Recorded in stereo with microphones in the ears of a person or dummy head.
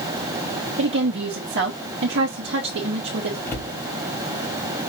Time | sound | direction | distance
0.8 | a woman speaking | 65° right (ahead or behind) | 3 m
3.5 | a cupboard door | 10° left (ahead or behind) | 3 m